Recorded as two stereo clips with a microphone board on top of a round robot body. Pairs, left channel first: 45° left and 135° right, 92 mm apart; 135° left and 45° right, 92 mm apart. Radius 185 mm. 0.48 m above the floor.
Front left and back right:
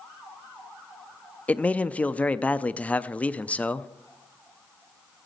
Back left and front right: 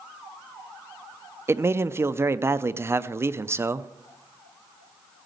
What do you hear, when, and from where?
1.5 s a man speaking: 15° right, 0.7 m